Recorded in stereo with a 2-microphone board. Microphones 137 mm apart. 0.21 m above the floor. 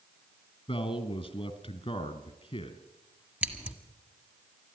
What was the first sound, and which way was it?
A man speaking, 40° left (ahead or behind).